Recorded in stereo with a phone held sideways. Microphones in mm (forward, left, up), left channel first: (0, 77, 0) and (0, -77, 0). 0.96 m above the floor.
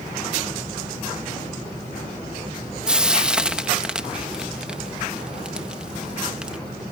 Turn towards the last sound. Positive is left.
turn(degrees=-5)  # may be behind; listen again after turning